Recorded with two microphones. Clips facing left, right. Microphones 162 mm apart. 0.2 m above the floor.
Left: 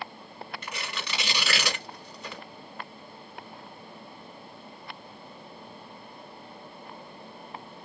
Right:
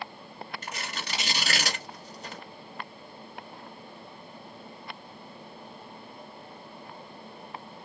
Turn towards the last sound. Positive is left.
turn(degrees=-40)  # may be behind; listen again after turning